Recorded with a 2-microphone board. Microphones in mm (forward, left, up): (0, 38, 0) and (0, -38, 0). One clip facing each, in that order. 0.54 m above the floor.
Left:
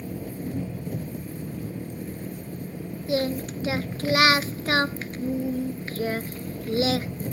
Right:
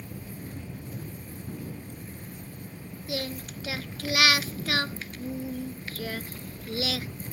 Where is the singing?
30° left (ahead or behind).